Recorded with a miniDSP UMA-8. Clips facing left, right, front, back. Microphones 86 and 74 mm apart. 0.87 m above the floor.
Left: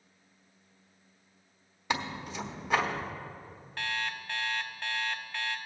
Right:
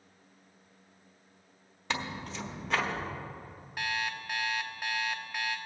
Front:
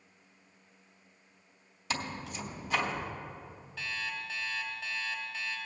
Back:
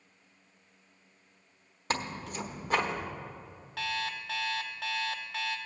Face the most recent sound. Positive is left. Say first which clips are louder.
# right 1 dB, back 4 dB
turn(degrees=-170)